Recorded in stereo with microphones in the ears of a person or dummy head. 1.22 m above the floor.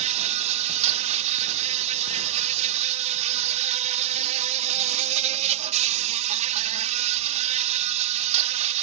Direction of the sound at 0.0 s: 40° right (ahead or behind).